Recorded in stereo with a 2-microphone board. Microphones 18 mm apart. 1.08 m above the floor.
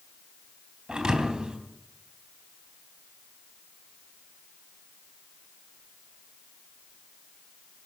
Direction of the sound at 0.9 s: 60° right (ahead or behind).